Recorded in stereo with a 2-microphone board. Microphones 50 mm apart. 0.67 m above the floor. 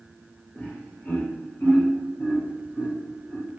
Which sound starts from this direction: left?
Laughter, at 0.6 s.